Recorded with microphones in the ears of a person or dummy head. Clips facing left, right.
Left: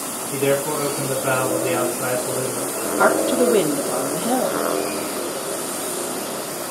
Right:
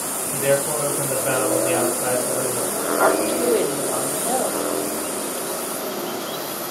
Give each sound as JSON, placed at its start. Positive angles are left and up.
{"t": 0.3, "sound": "a man speaking", "side_deg": 70, "distance_m": 6.0}
{"t": 3.0, "sound": "a woman speaking", "side_deg": 50, "distance_m": 3.0}